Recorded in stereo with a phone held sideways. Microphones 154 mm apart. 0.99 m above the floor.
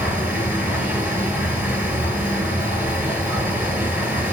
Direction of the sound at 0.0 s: 10° right (ahead or behind).